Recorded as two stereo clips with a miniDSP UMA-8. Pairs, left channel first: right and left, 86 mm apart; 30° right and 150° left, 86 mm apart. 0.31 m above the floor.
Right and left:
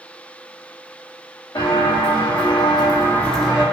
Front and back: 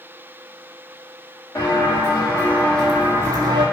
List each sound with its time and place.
1.6 s footsteps: 80° right, 1.7 m; by 3.6 s 160° left, 0.7 m